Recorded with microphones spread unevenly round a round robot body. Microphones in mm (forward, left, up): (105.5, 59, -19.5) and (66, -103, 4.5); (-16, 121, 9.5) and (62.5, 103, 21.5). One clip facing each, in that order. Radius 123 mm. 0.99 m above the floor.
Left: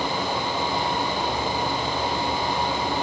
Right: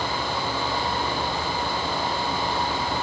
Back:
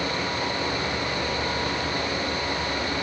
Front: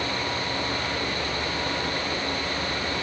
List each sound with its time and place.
Only background noise.